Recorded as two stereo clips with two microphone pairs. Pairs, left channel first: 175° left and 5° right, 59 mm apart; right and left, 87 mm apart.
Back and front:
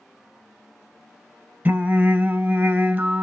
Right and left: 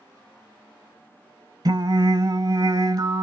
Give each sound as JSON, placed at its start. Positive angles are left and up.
{"t": 1.6, "sound": "singing", "azimuth_deg": 55, "distance_m": 0.5}